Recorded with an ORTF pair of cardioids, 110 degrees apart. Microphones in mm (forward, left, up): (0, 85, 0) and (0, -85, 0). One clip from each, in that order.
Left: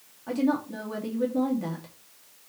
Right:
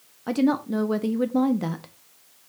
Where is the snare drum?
No snare drum in this recording.